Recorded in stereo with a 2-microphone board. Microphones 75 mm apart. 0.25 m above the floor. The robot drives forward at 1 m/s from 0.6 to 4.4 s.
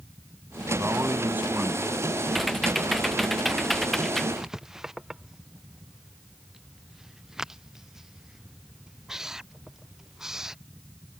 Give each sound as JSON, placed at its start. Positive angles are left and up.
{"t": 0.8, "sound": "a man speaking", "side_deg": -30}
{"t": 2.3, "sound": "typing on a keyboard", "side_deg": 0}
{"t": 4.4, "sound": "writing", "side_deg": -5}